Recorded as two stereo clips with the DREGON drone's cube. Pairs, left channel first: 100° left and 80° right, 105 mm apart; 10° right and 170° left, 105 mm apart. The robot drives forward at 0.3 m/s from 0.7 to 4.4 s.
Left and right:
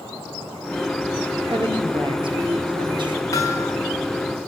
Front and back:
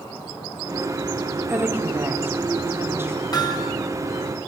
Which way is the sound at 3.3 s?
40° left.